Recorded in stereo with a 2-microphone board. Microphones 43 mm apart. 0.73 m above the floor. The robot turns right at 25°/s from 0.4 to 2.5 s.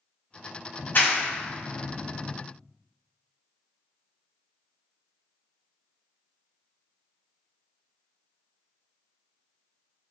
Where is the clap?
50° left (ahead or behind), 0.7 m; by 2.3 s 45° left (ahead or behind), 0.7 m.